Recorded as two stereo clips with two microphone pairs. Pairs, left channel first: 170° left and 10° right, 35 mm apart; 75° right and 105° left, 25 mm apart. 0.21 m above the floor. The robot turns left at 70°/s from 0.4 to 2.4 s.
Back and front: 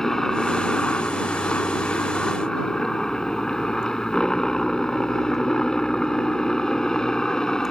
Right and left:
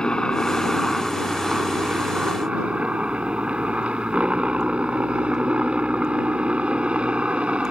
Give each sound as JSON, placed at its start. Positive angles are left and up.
{"t": 0.0, "sound": "a helicopter", "azimuth_deg": -115}